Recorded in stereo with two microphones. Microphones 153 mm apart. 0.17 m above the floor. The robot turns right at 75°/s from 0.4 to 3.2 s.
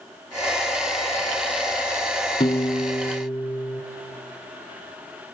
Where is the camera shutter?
I don't hear a camera shutter.